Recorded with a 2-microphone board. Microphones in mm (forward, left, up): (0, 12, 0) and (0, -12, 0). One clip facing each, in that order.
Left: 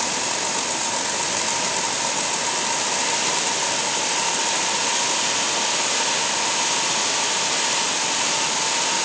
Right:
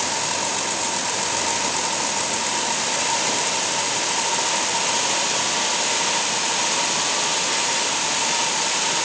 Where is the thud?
I don't hear a thud.